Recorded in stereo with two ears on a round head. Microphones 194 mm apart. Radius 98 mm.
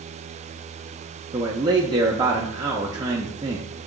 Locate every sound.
1.3 s a man speaking: 20° right (ahead or behind), 0.6 m